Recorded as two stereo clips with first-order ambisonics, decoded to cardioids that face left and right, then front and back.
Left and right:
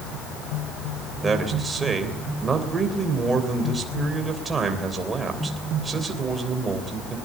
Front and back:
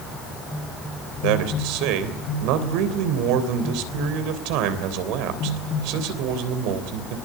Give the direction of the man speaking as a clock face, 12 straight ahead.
6 o'clock.